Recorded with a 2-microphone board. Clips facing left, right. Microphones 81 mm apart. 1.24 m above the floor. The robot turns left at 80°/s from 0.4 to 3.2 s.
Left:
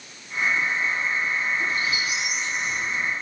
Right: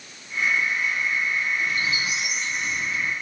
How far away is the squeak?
About 6.5 m.